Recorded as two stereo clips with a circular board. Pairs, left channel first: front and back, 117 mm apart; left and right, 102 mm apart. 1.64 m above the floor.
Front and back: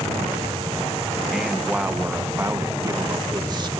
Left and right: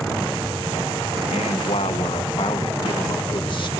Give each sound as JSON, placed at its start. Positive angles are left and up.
{"t": 1.3, "sound": "a man speaking", "azimuth_deg": 90, "distance_m": 1.4}